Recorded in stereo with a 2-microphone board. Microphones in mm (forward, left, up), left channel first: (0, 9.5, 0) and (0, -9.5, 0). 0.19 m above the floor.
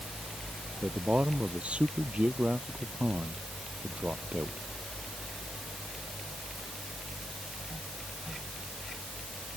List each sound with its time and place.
0.8 s a man speaking: 75° right (ahead or behind)